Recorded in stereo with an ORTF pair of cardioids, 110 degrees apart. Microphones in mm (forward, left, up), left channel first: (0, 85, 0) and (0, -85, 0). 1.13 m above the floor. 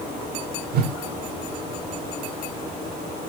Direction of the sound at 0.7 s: 65° right.